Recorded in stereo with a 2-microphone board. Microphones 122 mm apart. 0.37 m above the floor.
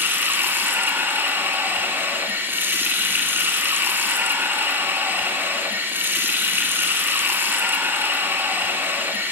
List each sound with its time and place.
0.0 s running water: 15° right (ahead or behind), 1.2 m